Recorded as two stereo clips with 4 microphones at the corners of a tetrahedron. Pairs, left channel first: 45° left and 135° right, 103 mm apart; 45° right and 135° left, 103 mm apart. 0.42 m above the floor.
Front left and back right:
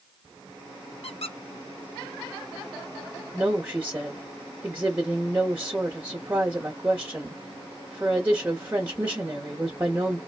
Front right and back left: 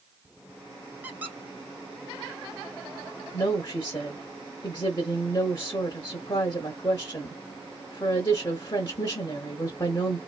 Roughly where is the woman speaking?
Right.